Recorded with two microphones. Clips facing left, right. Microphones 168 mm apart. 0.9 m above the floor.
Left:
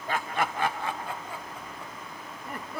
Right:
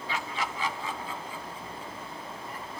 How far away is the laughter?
About 0.9 m.